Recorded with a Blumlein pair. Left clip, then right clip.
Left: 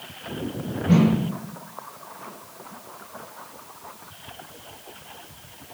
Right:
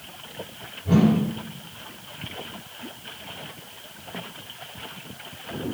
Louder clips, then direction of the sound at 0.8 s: Even; 50° left.